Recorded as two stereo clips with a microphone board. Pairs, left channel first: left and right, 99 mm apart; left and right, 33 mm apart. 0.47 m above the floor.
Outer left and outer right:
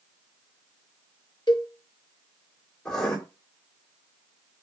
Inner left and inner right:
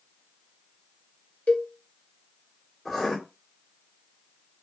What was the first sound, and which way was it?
A cowbell, 50° left (ahead or behind).